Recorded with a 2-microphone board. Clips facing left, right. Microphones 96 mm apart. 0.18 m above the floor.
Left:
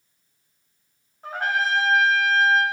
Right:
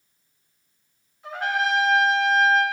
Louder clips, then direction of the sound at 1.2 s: Even; 45° left (ahead or behind).